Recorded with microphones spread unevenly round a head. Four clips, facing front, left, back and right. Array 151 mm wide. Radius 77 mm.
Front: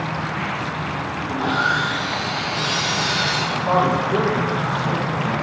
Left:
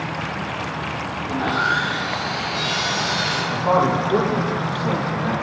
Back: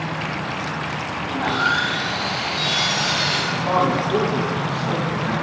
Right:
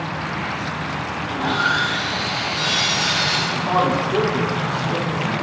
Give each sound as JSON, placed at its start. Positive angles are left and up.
{"t": 1.3, "sound": "sawing", "azimuth_deg": 60, "distance_m": 2.5}
{"t": 3.5, "sound": "a man speaking", "azimuth_deg": 100, "distance_m": 2.5}